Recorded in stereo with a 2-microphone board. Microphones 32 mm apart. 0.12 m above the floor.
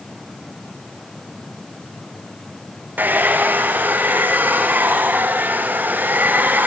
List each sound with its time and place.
3.0 s a hair dryer: 75° right (ahead or behind), 5 m